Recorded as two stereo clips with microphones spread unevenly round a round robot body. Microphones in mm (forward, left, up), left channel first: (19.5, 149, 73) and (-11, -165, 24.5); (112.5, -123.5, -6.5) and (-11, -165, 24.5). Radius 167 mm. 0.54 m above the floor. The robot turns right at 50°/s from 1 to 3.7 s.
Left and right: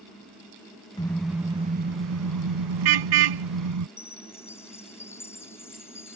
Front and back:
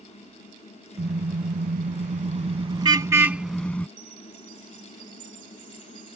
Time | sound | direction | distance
1.0 | a car horn | 160° left | ?
4.0 | a chime | 165° left | ?